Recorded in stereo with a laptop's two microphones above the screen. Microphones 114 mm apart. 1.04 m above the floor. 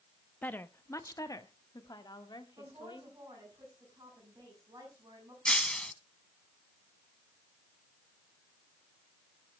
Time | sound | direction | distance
0.4 | a woman speaking | 15° left (ahead or behind) | 0.8 m
2.6 | a woman speaking | 35° right (ahead or behind) | 6.5 m
5.5 | breaking glass | 10° left (ahead or behind) | 1.0 m